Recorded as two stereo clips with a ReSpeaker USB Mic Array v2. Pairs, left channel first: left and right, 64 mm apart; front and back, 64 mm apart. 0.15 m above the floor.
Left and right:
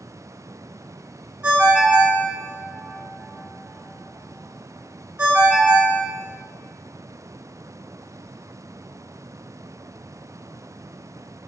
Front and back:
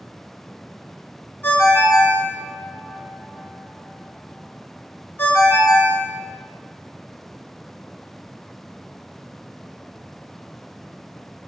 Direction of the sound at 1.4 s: 30° right.